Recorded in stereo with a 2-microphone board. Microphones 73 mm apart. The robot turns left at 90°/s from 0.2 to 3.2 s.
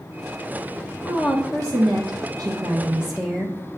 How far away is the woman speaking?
About 0.9 m.